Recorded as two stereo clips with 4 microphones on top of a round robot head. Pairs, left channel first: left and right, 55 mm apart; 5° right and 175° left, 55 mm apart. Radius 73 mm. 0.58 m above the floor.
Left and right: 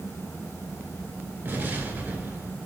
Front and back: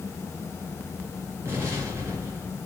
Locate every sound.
1.4 s an explosion: 135° right, 2.5 m